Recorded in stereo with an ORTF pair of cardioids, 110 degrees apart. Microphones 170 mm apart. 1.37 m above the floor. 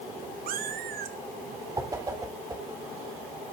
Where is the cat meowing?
65° right, 1.8 m.